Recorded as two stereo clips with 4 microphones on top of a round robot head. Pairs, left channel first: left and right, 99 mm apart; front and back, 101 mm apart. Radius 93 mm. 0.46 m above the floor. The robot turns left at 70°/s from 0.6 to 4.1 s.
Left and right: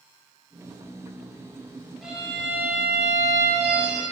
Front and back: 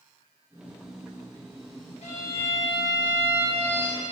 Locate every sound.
2.0 s a violin: straight ahead, 3.5 m; by 4.0 s 145° right, 3.5 m